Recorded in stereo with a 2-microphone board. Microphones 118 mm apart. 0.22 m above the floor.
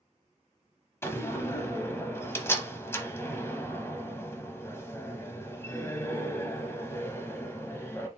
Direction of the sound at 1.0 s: 20° left (ahead or behind).